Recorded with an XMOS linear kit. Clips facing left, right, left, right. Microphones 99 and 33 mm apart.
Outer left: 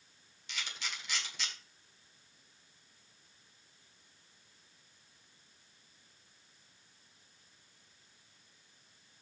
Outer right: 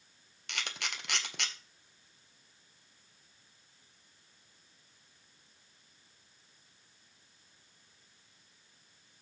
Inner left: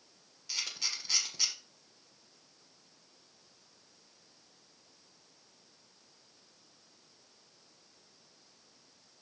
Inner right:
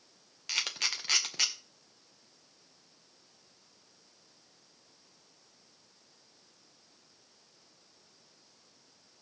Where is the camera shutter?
65° right (ahead or behind), 1.6 m.